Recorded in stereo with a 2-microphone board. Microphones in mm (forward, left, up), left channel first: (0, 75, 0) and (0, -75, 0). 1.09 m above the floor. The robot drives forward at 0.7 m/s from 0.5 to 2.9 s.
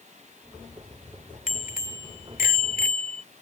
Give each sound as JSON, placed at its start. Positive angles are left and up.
{"t": 1.5, "sound": "a bicycle bell", "side_deg": 60}